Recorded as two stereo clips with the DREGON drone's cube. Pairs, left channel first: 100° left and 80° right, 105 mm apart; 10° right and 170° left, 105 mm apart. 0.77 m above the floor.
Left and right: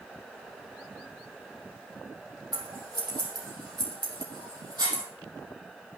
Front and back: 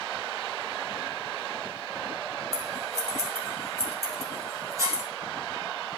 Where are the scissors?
130° right, 3.5 m.